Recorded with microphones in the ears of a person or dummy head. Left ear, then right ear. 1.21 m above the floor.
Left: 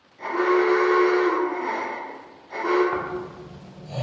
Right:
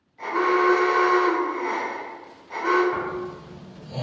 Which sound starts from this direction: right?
An alarm, at 0.2 s.